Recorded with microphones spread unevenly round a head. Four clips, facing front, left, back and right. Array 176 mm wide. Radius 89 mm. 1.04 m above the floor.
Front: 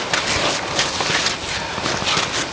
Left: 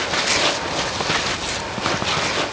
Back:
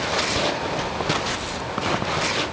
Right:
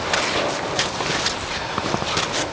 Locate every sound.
Only background noise.